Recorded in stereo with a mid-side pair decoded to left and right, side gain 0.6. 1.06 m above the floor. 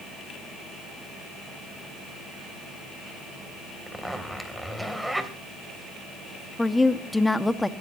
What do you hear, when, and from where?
3.9 s a zipper: straight ahead, 3 m
6.6 s a woman speaking: 10° left, 1.6 m